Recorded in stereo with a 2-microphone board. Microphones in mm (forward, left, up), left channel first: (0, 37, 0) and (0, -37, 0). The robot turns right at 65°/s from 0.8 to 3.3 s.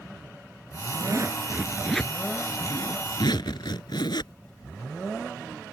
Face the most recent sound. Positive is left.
turn(degrees=95)